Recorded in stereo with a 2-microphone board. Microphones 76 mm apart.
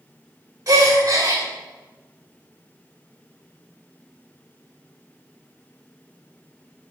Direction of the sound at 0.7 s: 45° right (ahead or behind).